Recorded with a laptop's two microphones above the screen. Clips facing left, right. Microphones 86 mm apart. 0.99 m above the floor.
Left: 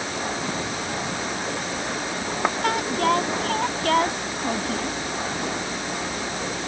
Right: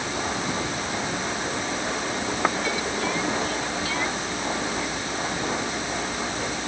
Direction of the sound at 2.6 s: 60° left (ahead or behind).